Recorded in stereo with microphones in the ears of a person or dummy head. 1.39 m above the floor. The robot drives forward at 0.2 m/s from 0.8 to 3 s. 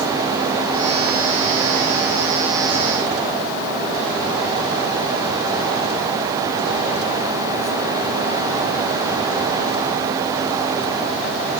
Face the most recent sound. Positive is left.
No sound to turn to.